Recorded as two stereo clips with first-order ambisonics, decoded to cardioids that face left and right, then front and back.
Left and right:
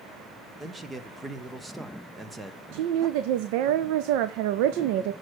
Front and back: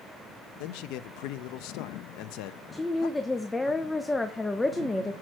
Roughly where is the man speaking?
Ahead.